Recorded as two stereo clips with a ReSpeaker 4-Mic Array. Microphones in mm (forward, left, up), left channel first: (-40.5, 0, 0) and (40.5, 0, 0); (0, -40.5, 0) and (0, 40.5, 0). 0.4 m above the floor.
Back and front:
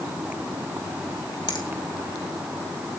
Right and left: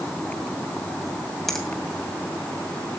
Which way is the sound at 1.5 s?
175° right.